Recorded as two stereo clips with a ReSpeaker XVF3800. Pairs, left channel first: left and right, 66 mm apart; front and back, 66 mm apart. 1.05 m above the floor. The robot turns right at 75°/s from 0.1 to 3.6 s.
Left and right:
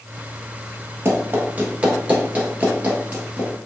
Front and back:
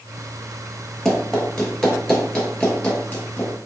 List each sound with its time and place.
1.1 s running footsteps: 85° right, 1.2 m; by 3.5 s 20° right, 1.3 m